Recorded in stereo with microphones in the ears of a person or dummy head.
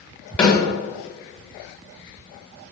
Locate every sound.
0.4 s a snare drum: 10° left (ahead or behind), 1.7 m